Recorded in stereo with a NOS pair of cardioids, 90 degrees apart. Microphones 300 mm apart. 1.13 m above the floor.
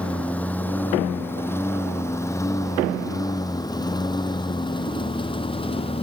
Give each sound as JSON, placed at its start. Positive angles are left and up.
{"t": 0.0, "sound": "a lawn mower", "azimuth_deg": 5}